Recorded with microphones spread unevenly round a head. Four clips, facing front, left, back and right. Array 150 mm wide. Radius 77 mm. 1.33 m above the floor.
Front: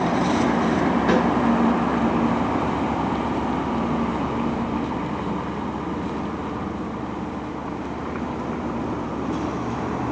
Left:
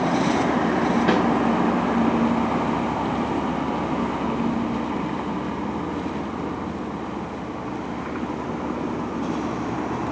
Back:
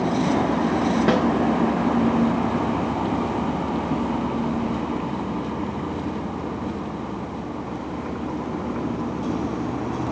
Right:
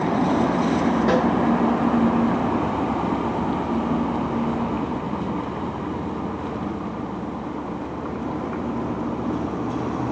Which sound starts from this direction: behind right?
A snare drum, at 1.1 s.